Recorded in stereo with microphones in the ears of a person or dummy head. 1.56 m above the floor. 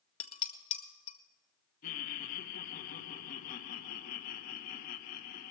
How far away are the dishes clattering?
About 0.9 m.